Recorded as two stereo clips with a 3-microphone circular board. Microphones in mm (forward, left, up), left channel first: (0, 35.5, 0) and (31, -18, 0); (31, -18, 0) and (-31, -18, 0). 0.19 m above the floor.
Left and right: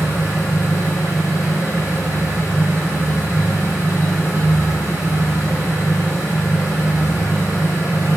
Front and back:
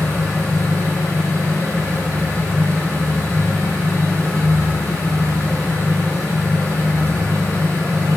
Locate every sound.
0.0 s an engine running: 155° left, 1.8 m